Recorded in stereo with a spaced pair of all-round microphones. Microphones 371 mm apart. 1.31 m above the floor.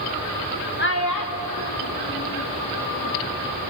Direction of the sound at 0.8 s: 30° left (ahead or behind).